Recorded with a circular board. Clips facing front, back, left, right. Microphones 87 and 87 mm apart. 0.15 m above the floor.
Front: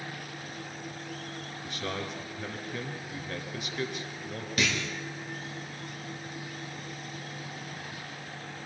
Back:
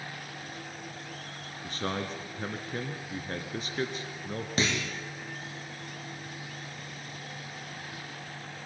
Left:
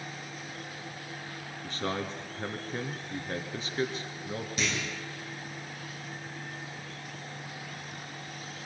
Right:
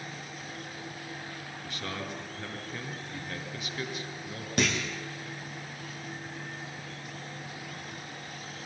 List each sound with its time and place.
1.6 s a man speaking: 140° left, 1.9 m
4.6 s a clunk: 120° right, 4 m